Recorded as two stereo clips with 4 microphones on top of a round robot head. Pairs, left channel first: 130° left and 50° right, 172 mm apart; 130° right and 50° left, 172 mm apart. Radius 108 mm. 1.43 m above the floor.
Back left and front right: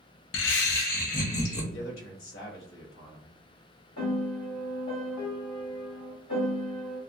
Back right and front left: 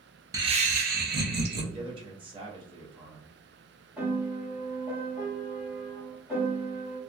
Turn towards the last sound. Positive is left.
turn(degrees=135)